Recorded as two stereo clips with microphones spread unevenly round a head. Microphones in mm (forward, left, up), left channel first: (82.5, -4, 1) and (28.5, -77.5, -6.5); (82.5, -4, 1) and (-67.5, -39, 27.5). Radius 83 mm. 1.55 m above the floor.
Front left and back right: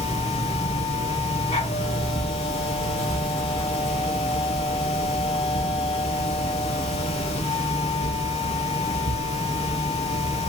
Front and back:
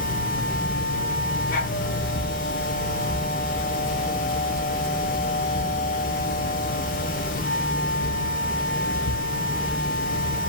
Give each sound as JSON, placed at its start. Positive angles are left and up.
{"t": 0.0, "sound": "a machine running", "azimuth_deg": 55, "distance_m": 1.0}